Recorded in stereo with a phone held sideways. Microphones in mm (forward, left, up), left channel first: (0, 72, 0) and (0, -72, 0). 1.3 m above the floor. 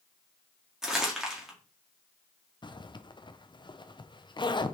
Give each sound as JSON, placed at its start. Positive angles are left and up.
{"t": 0.8, "sound": "crumpling", "side_deg": -5, "distance_m": 1.9}
{"t": 2.6, "sound": "a zipper", "side_deg": 35, "distance_m": 0.5}